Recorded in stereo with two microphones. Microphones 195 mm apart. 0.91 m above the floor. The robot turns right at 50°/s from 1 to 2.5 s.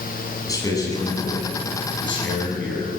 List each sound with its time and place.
0.5 s a man speaking: 20° left, 8 m; by 2.9 s 95° left, 8 m